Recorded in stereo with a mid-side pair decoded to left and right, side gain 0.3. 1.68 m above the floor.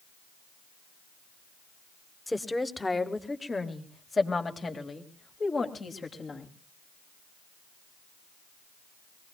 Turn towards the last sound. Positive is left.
turn(degrees=60)